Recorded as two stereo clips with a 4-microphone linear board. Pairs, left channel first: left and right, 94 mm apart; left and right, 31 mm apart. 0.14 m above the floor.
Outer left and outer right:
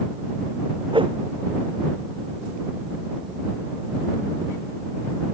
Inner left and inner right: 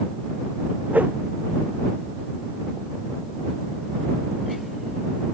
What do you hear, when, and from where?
0.9 s a whoosh: 60° right (ahead or behind)